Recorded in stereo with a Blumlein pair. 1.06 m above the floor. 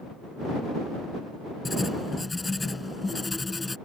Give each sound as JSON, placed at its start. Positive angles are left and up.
{"t": 1.6, "sound": "writing", "azimuth_deg": 10}